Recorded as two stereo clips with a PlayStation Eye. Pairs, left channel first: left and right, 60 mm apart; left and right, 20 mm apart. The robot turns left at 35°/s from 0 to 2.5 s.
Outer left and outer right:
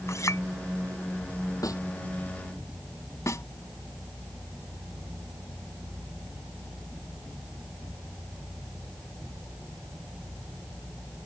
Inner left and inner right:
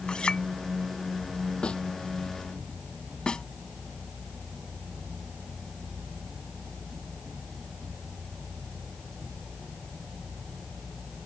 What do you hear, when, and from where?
0.1 s a clink: 55° left (ahead or behind); by 0.4 s 65° left (ahead or behind)
1.6 s a snare drum: 65° left (ahead or behind); by 1.8 s 70° left (ahead or behind)
3.3 s a snare drum: 60° left (ahead or behind)